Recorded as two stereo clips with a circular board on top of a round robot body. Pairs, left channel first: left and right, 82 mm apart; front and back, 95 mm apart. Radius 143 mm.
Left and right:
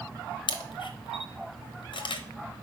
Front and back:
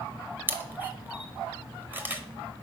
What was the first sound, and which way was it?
A camera shutter, 110° left.